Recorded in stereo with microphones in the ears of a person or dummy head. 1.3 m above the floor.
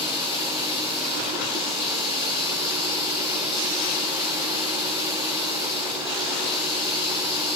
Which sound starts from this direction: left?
Running water, at 0.0 s.